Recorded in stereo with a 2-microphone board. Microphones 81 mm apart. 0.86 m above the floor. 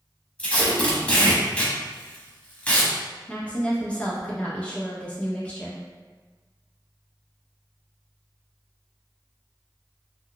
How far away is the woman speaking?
About 0.6 m.